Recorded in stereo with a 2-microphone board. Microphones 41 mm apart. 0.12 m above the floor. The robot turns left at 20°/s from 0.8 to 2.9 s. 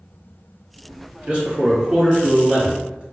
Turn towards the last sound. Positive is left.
turn(degrees=-145)